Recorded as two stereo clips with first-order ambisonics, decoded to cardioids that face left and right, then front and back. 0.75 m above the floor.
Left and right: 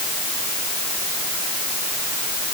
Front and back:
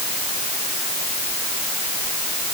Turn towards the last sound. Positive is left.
No sound to turn to.